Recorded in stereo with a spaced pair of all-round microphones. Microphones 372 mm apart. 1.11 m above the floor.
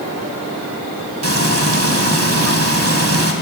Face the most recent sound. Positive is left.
turn(degrees=-45)  # may be behind; listen again after turning